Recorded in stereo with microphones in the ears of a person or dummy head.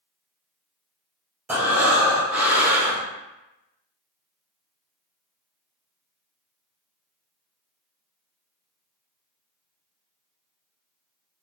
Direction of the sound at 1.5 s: 10° right (ahead or behind).